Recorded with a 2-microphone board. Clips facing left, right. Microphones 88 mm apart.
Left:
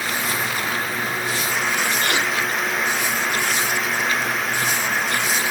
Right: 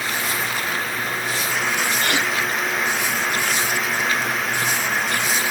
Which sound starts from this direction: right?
A gasp, at 2.0 s.